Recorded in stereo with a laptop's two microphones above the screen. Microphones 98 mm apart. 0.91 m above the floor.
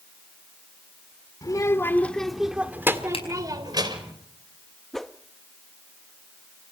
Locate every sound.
1.4 s a child speaking: 40° left (ahead or behind), 2 m; by 4.1 s 50° right (ahead or behind), 3.5 m
3.1 s a finger snap: 85° left, 5 m
4.9 s a whoosh: 5° left (ahead or behind), 0.5 m